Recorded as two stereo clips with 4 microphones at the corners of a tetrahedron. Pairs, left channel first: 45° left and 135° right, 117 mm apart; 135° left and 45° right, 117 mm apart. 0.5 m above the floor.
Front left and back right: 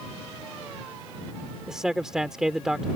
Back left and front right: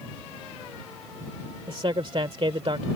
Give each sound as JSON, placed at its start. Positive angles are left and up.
{"t": 1.7, "sound": "a man speaking", "azimuth_deg": -50}